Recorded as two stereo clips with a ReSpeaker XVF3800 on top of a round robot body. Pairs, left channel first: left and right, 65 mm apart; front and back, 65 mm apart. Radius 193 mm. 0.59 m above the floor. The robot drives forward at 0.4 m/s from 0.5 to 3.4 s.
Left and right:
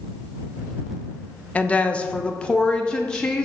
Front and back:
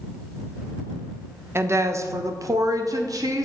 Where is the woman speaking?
150° left, 0.8 m; by 3.5 s 170° left, 1.4 m.